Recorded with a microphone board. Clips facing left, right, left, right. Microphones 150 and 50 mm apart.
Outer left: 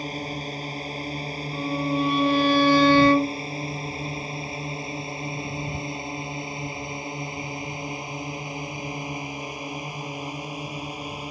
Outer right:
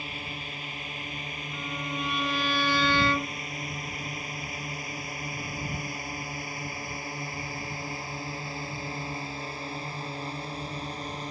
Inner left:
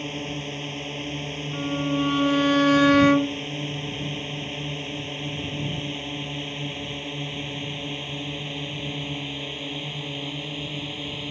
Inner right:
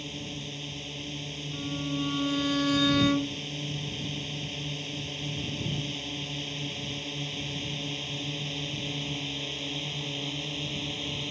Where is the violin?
50° left (ahead or behind).